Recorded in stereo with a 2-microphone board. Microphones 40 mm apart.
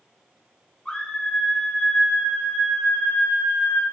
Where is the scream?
20° left (ahead or behind), 1.6 m; by 3.8 s 65° left (ahead or behind), 4.5 m.